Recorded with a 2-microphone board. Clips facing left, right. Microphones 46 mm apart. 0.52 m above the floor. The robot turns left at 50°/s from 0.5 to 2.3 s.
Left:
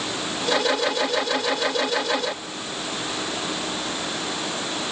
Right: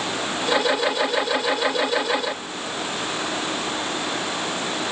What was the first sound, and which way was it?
Only background noise.